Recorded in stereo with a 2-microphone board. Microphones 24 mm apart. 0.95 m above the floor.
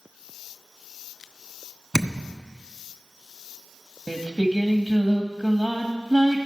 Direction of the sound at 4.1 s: 5° right (ahead or behind).